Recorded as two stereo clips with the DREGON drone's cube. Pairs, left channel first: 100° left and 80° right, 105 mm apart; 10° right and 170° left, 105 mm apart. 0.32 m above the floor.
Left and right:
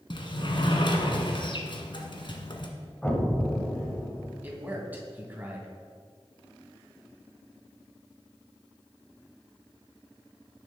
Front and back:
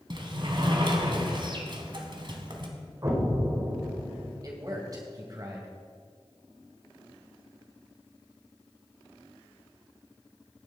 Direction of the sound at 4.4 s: 145° right.